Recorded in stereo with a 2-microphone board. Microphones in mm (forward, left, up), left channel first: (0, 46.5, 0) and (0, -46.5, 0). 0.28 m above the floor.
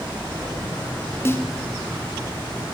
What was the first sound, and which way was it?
A snare drum, 30° left (ahead or behind).